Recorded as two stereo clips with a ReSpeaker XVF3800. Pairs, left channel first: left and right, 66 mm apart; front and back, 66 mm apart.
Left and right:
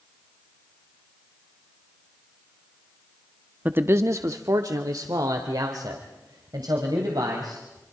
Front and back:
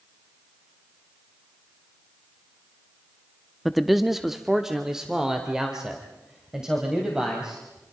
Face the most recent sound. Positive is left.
turn(degrees=-100)